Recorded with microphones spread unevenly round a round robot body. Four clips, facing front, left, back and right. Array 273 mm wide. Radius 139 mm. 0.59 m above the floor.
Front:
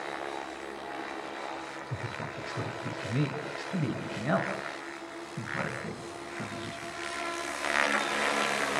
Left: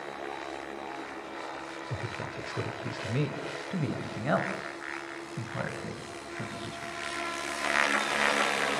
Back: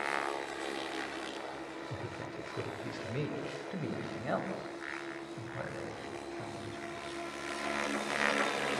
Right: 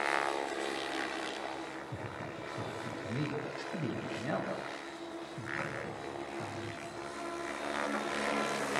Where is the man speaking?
75° left, 2.5 m; by 6.9 s 55° left, 6 m.